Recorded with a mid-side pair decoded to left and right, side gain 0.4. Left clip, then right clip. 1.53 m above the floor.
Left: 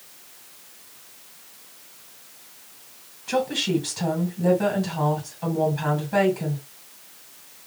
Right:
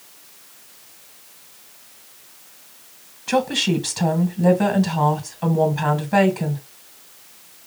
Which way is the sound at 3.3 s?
45° right.